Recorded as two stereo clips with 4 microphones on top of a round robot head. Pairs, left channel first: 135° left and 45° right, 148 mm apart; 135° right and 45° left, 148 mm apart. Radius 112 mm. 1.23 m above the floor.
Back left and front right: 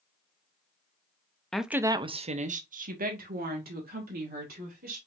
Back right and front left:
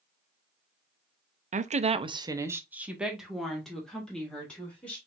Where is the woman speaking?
45° left, 0.7 m; by 5.0 s 50° right, 2.5 m.